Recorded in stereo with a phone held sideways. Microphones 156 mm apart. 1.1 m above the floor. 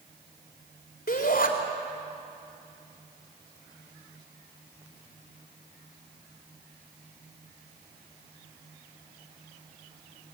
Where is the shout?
65° left (ahead or behind), 3.5 m.